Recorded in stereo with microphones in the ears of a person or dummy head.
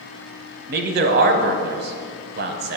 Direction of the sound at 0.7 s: 50° right (ahead or behind).